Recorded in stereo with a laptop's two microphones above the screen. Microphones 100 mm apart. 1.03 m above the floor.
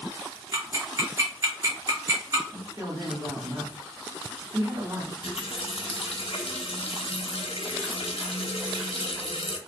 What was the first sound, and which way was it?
Ticking, 40° right (ahead or behind).